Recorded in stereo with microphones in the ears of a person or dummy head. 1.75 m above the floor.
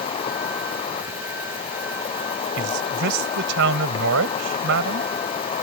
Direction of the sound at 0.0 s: 25° left (ahead or behind).